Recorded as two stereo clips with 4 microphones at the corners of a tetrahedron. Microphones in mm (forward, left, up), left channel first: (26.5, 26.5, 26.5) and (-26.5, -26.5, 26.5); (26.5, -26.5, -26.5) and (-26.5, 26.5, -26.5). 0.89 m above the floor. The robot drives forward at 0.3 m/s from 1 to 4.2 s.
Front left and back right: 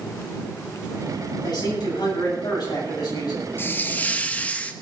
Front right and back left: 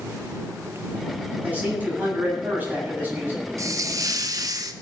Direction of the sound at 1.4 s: 65° left.